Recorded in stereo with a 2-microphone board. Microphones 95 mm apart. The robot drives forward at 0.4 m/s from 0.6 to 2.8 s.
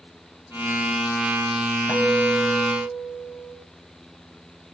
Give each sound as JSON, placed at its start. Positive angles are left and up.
{"t": 1.9, "sound": "a guitar", "side_deg": 30, "distance_m": 4.0}